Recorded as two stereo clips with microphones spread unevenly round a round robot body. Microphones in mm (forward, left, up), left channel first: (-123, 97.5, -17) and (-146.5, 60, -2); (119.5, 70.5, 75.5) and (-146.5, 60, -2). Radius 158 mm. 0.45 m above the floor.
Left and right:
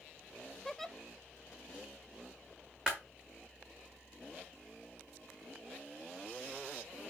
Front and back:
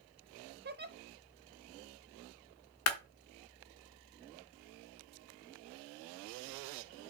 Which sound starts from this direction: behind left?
A giggle, at 0.7 s.